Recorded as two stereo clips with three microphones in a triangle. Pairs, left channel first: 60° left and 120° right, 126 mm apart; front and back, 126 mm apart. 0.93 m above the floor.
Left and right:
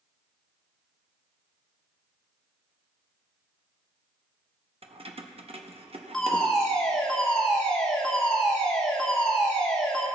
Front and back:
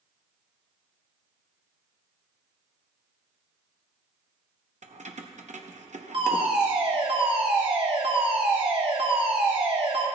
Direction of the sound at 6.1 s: 145° left.